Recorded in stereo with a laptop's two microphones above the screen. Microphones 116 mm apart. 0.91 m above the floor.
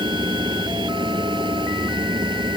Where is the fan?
45° right (ahead or behind).